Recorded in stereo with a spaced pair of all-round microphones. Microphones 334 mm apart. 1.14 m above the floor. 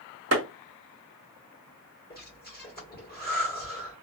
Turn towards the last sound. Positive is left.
turn(degrees=25)  # may be behind; listen again after turning